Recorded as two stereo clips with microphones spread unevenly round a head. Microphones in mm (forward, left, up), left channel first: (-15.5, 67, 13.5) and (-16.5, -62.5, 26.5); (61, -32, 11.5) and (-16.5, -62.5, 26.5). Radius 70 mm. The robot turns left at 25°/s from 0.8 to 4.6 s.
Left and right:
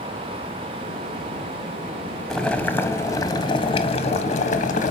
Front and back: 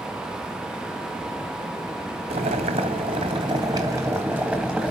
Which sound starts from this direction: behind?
Boiling, at 2.3 s.